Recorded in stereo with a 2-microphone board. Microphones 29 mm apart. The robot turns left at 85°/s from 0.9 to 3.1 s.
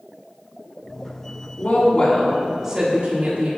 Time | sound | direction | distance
1.6 | a woman speaking | 75° left | 1.6 m